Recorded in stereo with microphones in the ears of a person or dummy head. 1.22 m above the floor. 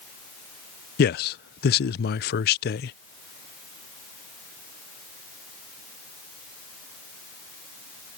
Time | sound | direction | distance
1.0 | a man speaking | 50° left (ahead or behind) | ?